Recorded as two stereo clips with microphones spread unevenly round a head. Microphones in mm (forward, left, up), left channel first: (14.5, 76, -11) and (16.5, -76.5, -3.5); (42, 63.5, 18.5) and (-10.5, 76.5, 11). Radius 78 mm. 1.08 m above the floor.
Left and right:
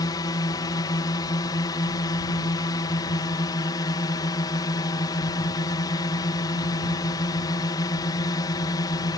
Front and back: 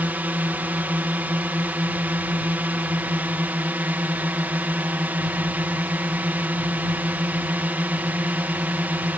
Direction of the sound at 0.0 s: 140° left.